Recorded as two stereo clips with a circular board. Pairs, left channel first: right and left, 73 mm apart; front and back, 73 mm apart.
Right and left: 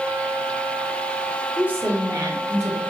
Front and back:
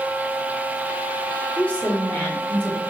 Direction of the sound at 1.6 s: 45° left.